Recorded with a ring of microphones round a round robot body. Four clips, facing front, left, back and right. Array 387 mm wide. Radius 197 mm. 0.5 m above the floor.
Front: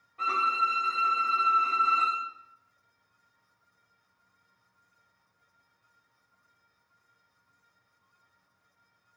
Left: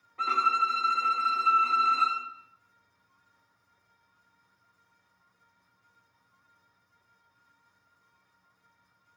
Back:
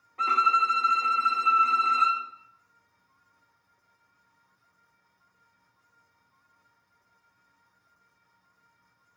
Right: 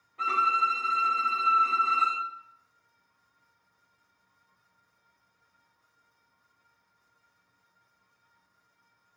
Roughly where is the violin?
Behind.